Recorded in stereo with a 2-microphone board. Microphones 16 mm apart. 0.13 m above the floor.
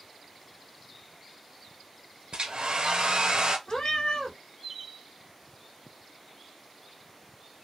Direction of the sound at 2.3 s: 65° right (ahead or behind).